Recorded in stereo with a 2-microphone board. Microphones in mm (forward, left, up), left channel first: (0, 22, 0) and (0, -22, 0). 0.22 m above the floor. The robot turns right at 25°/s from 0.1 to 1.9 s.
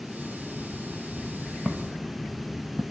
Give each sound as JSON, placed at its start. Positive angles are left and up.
{"t": 1.6, "sound": "footsteps", "side_deg": -10, "distance_m": 1.3}